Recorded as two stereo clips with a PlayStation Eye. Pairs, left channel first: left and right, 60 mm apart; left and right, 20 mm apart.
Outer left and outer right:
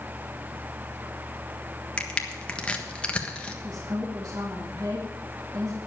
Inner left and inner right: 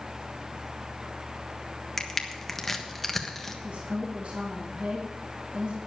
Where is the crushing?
20° left (ahead or behind), 1.4 m.